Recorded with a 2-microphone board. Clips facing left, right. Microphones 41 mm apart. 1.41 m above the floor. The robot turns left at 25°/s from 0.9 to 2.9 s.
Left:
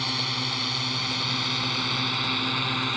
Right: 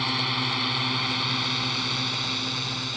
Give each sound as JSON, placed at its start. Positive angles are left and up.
{"t": 0.0, "sound": "a drone", "side_deg": -15}